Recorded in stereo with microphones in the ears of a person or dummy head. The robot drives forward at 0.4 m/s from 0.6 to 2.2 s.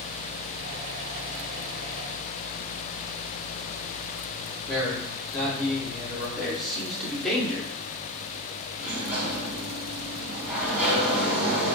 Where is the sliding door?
10° right (ahead or behind), 1.3 m.